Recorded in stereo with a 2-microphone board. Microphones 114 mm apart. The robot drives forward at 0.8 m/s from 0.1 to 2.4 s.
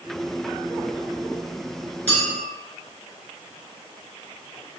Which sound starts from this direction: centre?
A clink, at 2.1 s.